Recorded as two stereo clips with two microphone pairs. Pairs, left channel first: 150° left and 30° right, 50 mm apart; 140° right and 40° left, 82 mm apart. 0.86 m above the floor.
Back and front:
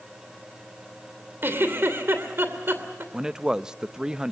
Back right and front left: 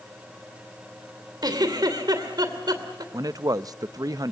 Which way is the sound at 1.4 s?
10° left.